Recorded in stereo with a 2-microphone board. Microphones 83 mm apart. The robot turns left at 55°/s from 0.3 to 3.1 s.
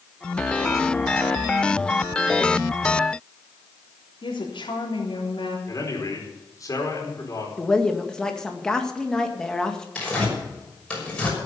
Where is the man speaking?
40° left (ahead or behind), 4.5 m.